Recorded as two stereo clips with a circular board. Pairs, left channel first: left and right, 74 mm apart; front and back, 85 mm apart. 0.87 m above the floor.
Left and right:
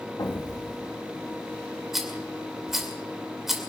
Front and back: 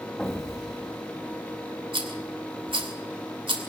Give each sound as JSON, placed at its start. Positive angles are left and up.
{"t": 0.2, "sound": "an explosion", "azimuth_deg": 90, "distance_m": 1.5}
{"t": 1.9, "sound": "a rattle", "azimuth_deg": -175, "distance_m": 2.5}